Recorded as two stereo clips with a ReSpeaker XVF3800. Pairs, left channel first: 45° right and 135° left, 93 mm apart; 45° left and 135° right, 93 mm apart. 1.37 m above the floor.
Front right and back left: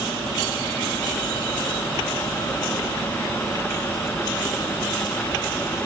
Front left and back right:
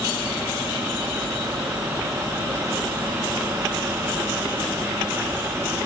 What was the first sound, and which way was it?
Only background noise.